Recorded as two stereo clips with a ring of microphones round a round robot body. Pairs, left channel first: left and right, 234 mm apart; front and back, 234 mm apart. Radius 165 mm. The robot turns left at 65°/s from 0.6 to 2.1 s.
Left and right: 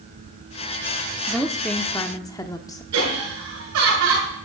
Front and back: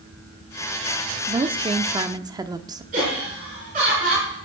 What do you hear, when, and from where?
1.3 s a woman speaking: 165° right, 0.7 m; by 2.8 s 140° left, 0.7 m
2.9 s laughter: 110° right, 7.5 m